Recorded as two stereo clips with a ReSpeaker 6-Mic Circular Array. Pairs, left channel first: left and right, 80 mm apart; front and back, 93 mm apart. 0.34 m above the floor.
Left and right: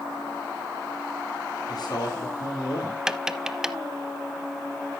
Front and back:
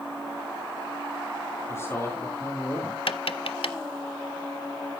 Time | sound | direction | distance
1.7 | a man speaking | 60° left | 6 m
3.1 | tapping | 10° right | 0.7 m